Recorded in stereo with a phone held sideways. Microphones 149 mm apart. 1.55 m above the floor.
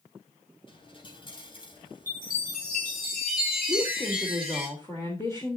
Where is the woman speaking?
20° left (ahead or behind), 3 m.